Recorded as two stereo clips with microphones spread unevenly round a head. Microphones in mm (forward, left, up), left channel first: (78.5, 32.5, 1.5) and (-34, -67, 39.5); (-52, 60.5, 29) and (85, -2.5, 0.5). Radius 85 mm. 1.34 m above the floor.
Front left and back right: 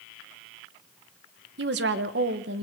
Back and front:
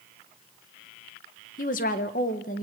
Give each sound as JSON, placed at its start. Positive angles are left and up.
{"t": 1.6, "sound": "a woman speaking", "azimuth_deg": -160, "distance_m": 1.6}